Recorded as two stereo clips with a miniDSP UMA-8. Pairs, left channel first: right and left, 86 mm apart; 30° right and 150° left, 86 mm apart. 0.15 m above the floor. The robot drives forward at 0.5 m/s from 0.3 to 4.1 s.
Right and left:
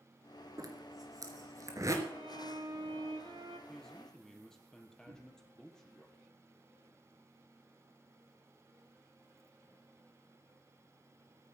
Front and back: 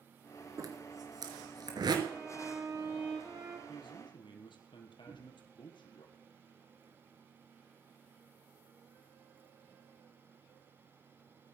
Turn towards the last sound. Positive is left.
turn(degrees=75)